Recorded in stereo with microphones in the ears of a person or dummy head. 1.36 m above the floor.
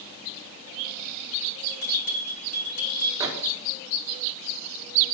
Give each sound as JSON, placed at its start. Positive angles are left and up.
{"t": 1.7, "sound": "a bell", "side_deg": 40, "distance_m": 3.0}
{"t": 3.2, "sound": "a microwave", "side_deg": -15, "distance_m": 1.3}